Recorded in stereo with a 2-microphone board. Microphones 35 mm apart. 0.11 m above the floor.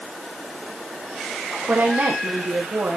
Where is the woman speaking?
75° right (ahead or behind), 6.5 m.